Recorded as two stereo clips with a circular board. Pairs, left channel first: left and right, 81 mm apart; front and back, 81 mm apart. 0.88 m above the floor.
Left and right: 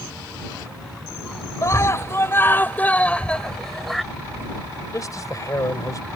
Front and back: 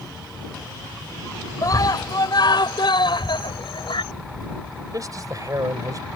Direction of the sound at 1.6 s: 40° left.